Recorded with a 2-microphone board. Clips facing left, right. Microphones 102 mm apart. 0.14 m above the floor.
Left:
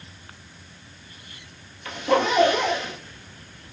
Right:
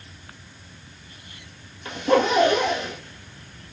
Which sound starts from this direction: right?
A zipper, at 1.9 s.